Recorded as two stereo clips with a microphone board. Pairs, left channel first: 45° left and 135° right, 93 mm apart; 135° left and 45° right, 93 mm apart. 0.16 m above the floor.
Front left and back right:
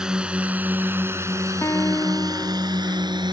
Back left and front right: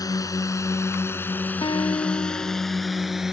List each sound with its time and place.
0.0 s a drone: 145° left; by 3.3 s 130° right
1.6 s a guitar: 105° left